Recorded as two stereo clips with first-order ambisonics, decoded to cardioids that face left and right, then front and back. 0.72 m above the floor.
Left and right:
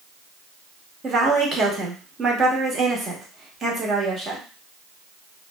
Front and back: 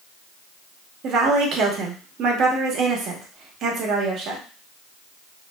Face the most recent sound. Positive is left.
turn(degrees=-150)